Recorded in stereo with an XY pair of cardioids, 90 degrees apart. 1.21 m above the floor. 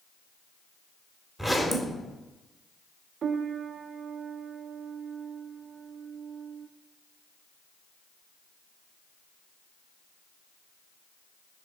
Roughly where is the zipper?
Ahead.